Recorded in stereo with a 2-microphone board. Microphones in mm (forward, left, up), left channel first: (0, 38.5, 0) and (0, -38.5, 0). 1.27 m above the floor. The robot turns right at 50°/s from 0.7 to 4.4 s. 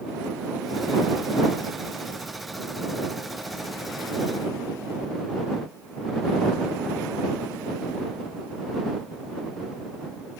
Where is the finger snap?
I don't hear a finger snap.